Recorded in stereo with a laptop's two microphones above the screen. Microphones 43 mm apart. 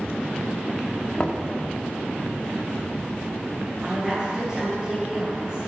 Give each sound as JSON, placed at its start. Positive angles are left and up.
{"t": 1.2, "sound": "knocking", "side_deg": 25, "distance_m": 1.7}
{"t": 3.8, "sound": "a woman speaking", "side_deg": -15, "distance_m": 7.0}